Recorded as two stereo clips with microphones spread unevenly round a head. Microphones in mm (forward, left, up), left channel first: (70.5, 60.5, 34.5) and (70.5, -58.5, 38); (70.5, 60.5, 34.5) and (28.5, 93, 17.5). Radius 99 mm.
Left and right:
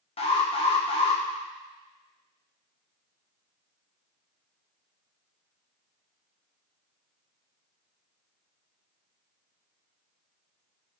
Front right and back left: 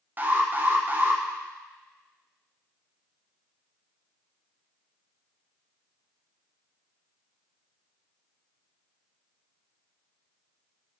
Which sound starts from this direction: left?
An alarm, at 0.2 s.